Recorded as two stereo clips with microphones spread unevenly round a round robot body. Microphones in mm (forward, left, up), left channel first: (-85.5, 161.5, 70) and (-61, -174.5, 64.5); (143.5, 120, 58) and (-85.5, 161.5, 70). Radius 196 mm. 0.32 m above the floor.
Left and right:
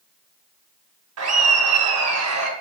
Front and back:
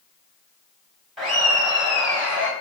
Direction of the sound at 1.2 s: 100° right.